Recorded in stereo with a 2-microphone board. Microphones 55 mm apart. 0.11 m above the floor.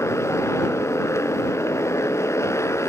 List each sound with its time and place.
0.0 s a motorcycle: 55° left (ahead or behind)